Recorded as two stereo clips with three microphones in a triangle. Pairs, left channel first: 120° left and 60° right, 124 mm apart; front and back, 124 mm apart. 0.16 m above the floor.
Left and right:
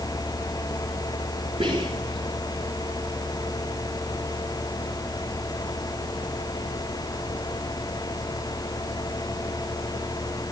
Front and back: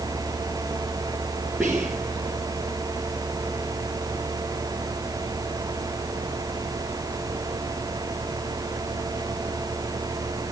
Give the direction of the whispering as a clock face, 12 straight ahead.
3 o'clock.